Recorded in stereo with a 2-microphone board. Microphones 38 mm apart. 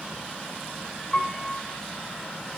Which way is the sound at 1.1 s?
20° left (ahead or behind).